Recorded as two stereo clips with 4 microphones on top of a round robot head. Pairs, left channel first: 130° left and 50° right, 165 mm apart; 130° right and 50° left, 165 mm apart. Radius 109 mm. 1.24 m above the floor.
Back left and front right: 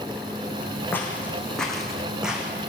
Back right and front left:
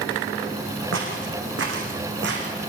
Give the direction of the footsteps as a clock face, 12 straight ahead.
10 o'clock.